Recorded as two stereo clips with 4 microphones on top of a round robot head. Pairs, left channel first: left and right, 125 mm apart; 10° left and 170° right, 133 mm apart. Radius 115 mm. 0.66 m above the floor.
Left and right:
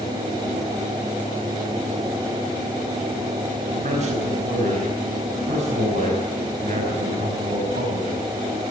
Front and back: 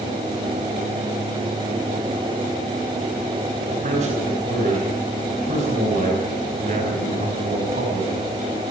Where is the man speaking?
130° right, 5 m.